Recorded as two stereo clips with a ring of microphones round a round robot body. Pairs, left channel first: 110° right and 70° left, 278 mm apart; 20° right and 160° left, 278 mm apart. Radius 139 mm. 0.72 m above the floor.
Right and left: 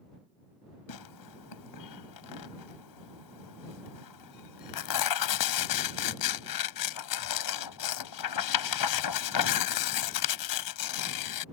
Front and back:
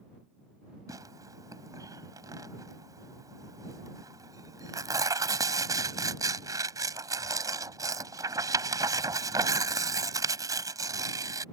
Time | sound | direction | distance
0.9 | tearing paper | 125° right | ?